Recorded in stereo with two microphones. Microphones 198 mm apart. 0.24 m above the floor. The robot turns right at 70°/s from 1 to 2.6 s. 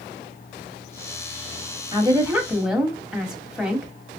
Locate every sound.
1.9 s a woman speaking: 25° right (ahead or behind), 1.0 m; by 3.9 s 5° right (ahead or behind), 1.0 m